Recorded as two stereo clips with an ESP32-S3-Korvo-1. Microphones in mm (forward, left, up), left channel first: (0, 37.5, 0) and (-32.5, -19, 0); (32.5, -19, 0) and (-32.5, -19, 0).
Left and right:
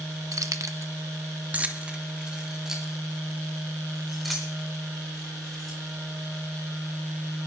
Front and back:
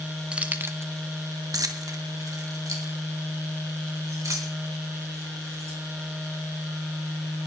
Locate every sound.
0.3 s keys jangling: 110° right, 1.0 m; by 5.8 s 145° left, 5.5 m